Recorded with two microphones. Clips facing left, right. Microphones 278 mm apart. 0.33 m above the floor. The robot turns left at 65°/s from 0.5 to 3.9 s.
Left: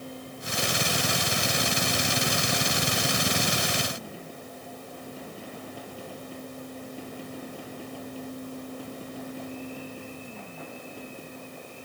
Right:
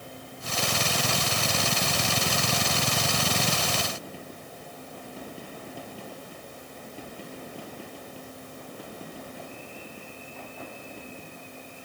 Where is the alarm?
I don't hear an alarm.